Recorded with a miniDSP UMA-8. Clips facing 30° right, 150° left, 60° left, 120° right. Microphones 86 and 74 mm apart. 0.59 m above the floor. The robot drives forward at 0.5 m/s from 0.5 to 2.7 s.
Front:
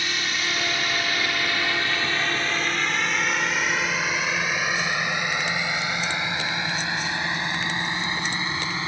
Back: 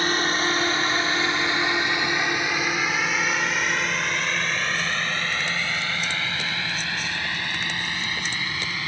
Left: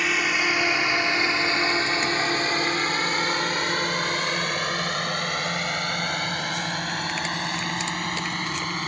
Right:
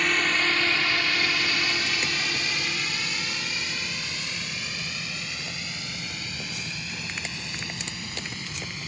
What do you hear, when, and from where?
0.0 s a drone: 145° left; by 8.9 s 35° left